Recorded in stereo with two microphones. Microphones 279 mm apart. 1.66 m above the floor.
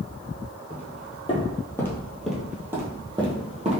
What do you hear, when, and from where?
0.7 s footsteps: 25° left (ahead or behind), 1.8 m; by 3.8 s 25° right (ahead or behind), 1.8 m